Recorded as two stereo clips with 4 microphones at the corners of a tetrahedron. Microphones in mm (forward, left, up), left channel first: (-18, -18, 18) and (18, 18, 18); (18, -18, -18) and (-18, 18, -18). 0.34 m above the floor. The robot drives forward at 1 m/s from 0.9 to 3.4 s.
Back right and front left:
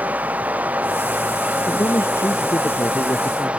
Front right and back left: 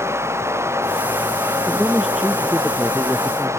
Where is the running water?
105° left; by 3.6 s 110° left.